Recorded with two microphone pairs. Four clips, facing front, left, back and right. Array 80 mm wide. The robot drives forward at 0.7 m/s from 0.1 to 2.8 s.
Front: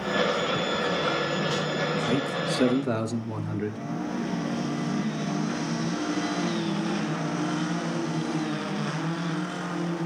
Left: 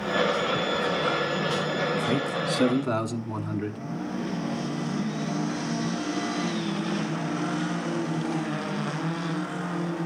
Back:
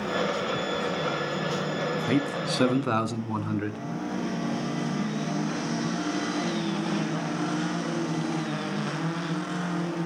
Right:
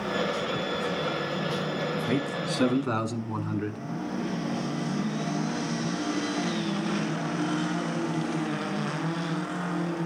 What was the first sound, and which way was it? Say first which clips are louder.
A man speaking: left 2 dB, even; straight behind.